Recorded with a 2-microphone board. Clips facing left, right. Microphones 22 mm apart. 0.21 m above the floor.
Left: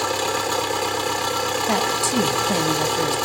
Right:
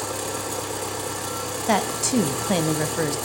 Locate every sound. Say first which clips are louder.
0.0 s an engine running: left 7 dB; 40° left (ahead or behind), 2 m
1.7 s a woman speaking: right 2 dB; 15° right (ahead or behind), 1.2 m